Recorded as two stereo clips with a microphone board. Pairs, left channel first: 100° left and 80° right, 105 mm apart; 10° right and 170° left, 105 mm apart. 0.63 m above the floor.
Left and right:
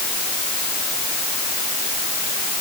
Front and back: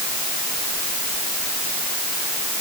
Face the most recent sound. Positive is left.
No sound to turn to.